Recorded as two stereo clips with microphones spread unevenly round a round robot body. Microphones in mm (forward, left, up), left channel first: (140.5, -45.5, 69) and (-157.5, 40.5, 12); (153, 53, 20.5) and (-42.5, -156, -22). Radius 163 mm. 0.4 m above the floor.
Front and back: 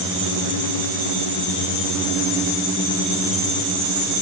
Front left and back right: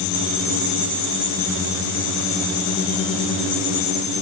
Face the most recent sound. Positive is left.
No sound to turn to.